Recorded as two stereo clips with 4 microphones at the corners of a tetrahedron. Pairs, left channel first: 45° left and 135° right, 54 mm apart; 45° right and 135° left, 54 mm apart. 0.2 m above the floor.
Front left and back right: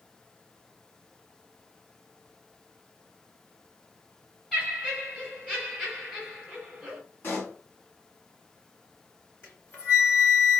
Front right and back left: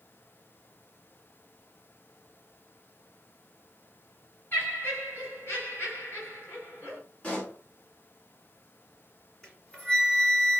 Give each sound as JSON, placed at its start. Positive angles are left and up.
{"t": 4.5, "sound": "laughter", "azimuth_deg": -25, "distance_m": 1.6}
{"t": 7.2, "sound": "a pop", "azimuth_deg": 15, "distance_m": 1.4}
{"t": 9.4, "sound": "a flute", "azimuth_deg": 25, "distance_m": 1.9}